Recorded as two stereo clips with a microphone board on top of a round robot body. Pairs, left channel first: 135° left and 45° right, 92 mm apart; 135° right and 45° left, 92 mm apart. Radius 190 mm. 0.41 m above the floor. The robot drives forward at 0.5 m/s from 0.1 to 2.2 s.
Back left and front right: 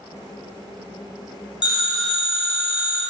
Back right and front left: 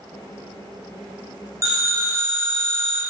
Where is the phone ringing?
100° left, 2 m; by 3.0 s 110° left, 2 m.